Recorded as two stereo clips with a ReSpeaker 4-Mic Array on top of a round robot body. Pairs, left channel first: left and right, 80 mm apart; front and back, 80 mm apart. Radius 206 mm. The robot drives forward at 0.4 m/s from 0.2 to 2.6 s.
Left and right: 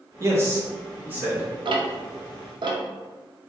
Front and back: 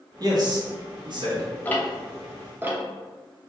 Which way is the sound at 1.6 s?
70° right.